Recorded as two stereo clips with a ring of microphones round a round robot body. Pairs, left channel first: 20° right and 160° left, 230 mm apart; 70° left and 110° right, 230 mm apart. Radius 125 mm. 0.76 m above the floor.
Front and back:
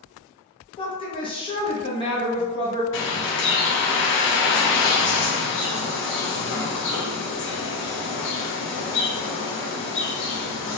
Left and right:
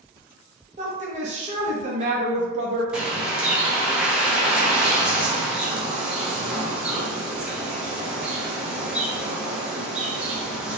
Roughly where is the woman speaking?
Right.